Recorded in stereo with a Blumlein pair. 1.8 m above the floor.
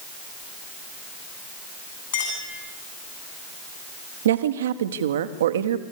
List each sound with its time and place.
2.1 s a clink: 55° left, 9.5 m
4.2 s a woman speaking: 60° right, 1.3 m